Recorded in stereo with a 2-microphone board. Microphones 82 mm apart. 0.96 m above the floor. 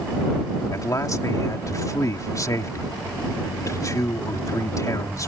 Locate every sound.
0.7 s a man speaking: 45° left (ahead or behind)